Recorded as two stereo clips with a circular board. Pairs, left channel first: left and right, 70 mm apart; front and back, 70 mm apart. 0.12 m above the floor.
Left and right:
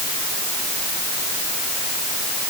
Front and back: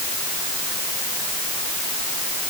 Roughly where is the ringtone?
I don't hear a ringtone.